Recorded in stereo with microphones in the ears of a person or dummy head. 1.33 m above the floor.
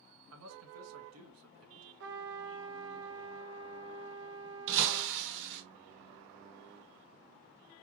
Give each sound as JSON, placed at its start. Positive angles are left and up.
{"t": 0.3, "sound": "a man speaking", "side_deg": -75, "distance_m": 1.5}
{"t": 2.0, "sound": "a trumpet", "side_deg": -60, "distance_m": 0.6}
{"t": 4.7, "sound": "breaking glass", "side_deg": -65, "distance_m": 3.5}